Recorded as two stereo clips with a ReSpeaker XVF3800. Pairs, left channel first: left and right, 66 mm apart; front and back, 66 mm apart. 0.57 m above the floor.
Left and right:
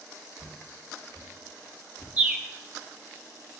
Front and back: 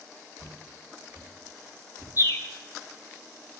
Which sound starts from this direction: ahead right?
A bird, at 2.2 s.